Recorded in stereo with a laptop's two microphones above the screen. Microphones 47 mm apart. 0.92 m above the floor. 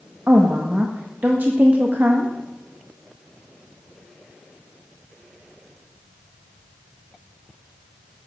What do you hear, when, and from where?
0.3 s a woman speaking: 40° right (ahead or behind), 0.7 m